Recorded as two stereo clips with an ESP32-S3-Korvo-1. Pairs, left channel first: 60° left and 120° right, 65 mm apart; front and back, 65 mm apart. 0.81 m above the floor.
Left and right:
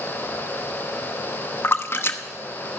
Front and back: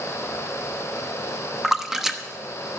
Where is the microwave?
No microwave in this recording.